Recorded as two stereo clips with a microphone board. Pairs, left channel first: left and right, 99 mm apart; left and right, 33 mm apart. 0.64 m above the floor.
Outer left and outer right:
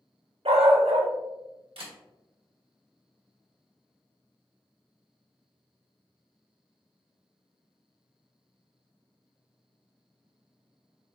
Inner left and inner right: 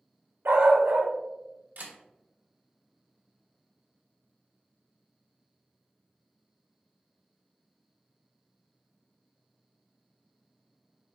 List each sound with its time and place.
0.5 s a dog barking: 85° right, 0.8 m
1.8 s a camera shutter: 70° right (ahead or behind), 1.1 m